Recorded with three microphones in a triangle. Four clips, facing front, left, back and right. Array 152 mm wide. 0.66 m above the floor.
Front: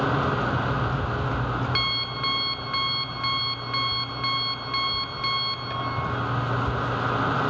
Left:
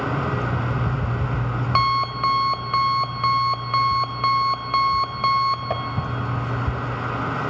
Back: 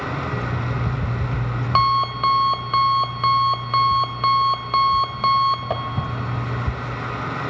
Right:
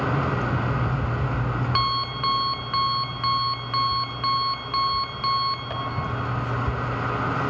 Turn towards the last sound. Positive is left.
turn(degrees=145)